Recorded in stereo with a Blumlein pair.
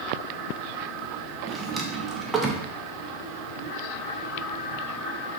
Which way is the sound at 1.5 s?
10° right.